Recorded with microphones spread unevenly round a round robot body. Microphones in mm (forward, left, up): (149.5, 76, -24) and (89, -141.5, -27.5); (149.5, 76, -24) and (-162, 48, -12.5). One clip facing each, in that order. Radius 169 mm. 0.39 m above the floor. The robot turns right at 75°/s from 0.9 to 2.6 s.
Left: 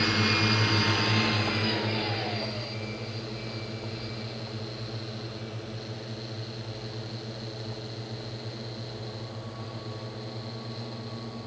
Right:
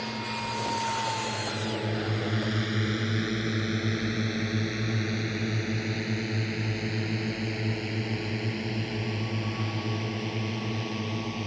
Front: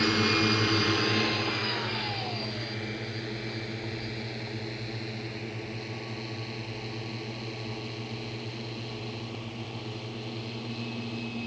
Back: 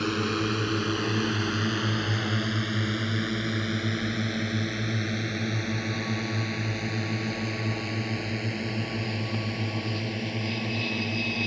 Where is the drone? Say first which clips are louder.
Left 8 dB, front 1 dB; 95° left; by 11.5 s 140° right.